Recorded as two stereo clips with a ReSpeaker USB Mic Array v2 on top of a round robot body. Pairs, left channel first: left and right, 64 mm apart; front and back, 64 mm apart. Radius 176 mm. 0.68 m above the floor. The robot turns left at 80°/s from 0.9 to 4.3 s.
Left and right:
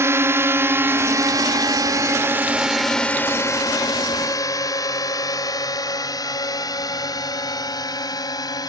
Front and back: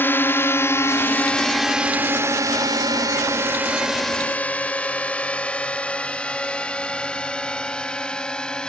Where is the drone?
50° right; by 8.7 s 75° left.